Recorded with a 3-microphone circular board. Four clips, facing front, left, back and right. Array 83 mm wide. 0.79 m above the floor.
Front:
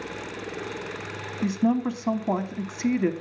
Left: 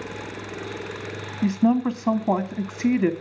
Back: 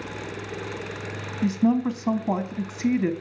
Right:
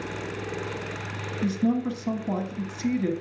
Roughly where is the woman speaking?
Left.